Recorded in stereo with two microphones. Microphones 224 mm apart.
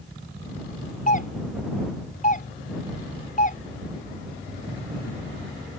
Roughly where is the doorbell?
Left.